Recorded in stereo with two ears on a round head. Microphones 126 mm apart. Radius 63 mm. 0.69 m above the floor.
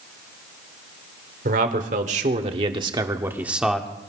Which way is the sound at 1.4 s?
65° right (ahead or behind).